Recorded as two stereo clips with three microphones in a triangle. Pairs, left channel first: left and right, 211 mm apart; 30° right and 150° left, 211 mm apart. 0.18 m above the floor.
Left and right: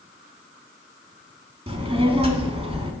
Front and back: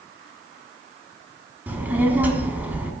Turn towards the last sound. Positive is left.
turn(degrees=-135)